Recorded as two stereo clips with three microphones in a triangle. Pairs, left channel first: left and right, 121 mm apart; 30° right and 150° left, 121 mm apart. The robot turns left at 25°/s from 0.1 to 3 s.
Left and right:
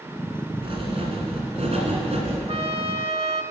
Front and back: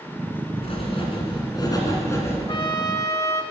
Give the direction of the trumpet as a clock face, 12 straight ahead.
2 o'clock.